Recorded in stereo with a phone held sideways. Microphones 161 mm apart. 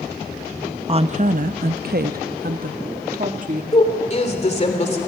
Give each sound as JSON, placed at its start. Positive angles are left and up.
{"t": 0.9, "sound": "a woman speaking", "side_deg": -35, "distance_m": 0.6}
{"t": 3.7, "sound": "a woman speaking", "side_deg": 40, "distance_m": 3.5}